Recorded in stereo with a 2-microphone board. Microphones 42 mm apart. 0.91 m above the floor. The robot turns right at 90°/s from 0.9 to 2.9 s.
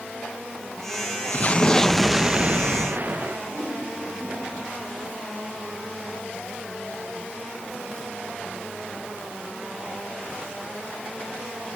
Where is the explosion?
120° left, 0.6 m; by 3.4 s 100° right, 0.6 m.